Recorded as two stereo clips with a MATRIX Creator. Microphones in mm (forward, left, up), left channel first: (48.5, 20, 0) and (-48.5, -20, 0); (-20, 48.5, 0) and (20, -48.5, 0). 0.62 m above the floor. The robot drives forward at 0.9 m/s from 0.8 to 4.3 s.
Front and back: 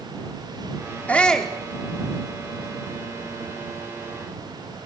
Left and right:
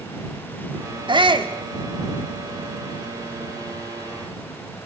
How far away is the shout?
About 1.8 m.